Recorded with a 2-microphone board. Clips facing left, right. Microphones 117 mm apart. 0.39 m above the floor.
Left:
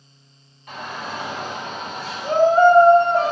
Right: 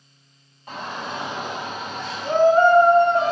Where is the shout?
30° right (ahead or behind), 1.7 m; by 3.3 s 40° left (ahead or behind), 1.5 m.